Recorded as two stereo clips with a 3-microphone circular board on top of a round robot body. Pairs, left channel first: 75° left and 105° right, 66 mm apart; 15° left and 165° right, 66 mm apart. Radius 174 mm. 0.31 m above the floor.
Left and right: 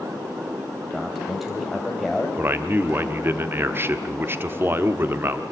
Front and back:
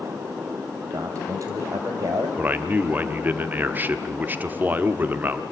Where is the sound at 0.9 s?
165° left, 3 m.